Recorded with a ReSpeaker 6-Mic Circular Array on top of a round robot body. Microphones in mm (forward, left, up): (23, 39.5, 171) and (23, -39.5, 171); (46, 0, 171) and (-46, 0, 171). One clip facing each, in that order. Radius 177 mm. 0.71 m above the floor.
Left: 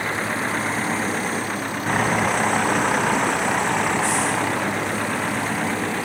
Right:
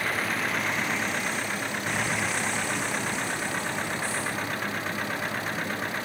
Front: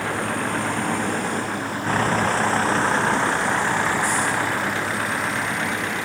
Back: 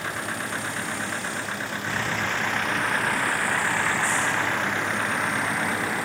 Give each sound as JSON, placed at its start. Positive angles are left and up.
{"t": 0.0, "sound": "a vehicle", "azimuth_deg": 30}